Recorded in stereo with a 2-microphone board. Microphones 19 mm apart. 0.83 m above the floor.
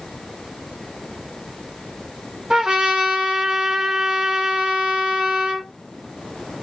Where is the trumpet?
50° right (ahead or behind), 1.8 m.